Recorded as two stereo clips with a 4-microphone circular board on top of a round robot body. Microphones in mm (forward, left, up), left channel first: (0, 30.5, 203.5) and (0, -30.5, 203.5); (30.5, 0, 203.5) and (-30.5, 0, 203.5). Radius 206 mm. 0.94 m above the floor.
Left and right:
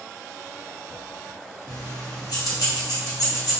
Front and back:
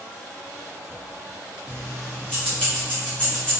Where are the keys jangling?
75° left, 0.8 m.